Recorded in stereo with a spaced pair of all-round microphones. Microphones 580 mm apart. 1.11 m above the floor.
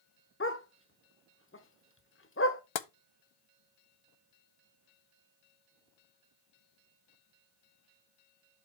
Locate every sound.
0.4 s a dog barking: 20° left (ahead or behind), 0.8 m
2.8 s tapping: 55° left (ahead or behind), 0.6 m